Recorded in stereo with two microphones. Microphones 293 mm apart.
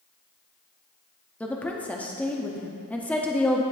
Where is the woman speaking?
5° left (ahead or behind), 0.5 m.